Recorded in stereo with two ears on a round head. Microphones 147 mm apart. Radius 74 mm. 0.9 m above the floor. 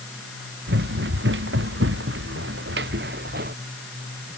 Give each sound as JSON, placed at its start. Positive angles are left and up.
{"t": 0.7, "sound": "running footsteps", "side_deg": -70}